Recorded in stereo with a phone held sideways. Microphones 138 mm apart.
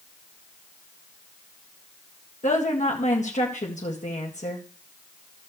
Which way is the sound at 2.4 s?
65° left (ahead or behind).